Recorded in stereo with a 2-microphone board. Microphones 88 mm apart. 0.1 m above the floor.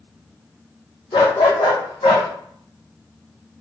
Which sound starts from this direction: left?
A dog barking, at 1.1 s.